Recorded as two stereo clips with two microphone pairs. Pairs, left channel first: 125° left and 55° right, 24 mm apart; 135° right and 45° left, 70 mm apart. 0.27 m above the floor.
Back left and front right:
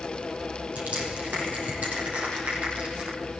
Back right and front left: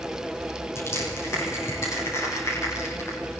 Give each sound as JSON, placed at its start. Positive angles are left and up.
{"t": 0.8, "sound": "crushing", "azimuth_deg": -85, "distance_m": 10.0}